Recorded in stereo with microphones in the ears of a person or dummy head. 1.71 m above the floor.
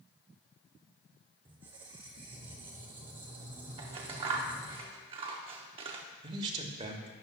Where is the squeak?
20° right (ahead or behind), 0.7 m.